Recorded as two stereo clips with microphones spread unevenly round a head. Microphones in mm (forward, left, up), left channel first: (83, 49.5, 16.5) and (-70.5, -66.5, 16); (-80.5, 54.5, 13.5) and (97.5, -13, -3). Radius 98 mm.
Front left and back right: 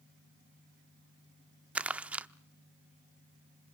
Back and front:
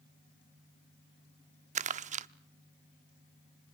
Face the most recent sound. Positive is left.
turn(degrees=-65)